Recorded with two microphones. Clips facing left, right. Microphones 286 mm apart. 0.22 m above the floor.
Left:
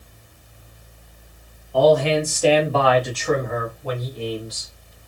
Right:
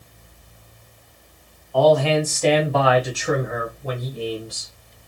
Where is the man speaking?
25° left (ahead or behind), 1.2 m; by 4.7 s 45° right (ahead or behind), 1.3 m.